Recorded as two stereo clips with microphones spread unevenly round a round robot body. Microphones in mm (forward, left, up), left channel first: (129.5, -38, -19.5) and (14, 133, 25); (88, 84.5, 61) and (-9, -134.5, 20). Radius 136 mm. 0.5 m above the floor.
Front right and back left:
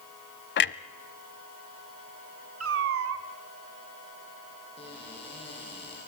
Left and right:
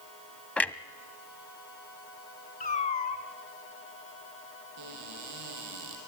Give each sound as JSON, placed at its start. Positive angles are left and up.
{"t": 0.6, "sound": "a clunk", "azimuth_deg": -15, "distance_m": 0.6}
{"t": 2.6, "sound": "a cat meowing", "azimuth_deg": 130, "distance_m": 1.5}
{"t": 4.8, "sound": "a cupboard door", "azimuth_deg": -125, "distance_m": 6.0}